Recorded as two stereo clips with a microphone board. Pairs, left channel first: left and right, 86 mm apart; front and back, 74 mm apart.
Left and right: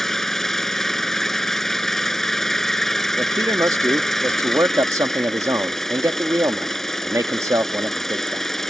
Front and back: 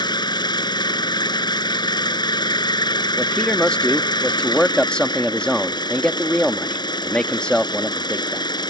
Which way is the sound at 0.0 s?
5° left.